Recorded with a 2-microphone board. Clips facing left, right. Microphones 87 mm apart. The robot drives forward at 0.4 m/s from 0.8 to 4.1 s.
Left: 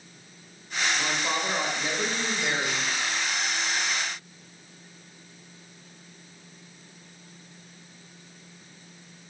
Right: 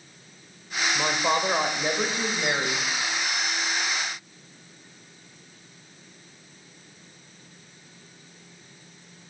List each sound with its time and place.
0.9 s a woman speaking: 45° right (ahead or behind), 1.3 m; by 2.8 s 30° right (ahead or behind), 1.8 m